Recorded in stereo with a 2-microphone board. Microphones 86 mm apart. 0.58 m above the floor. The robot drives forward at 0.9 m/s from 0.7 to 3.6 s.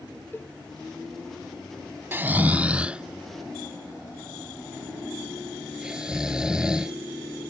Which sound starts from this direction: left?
A cowbell, at 0.3 s.